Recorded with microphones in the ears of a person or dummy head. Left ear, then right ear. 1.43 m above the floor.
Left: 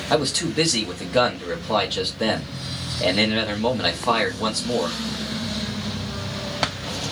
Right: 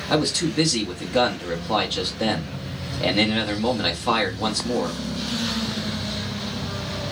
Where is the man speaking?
10° left (ahead or behind), 0.8 m.